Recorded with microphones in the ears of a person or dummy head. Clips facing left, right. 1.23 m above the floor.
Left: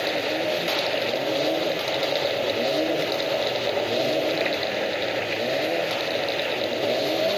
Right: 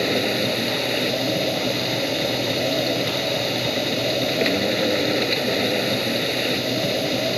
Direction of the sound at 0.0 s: 50° right (ahead or behind).